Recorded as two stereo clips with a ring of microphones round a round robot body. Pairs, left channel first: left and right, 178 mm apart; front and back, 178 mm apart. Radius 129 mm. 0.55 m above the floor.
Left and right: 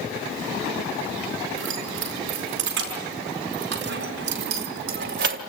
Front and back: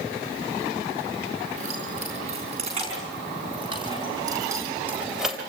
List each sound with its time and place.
1.6 s keys jangling: 115° right, 6 m; by 5.4 s 90° right, 1.9 m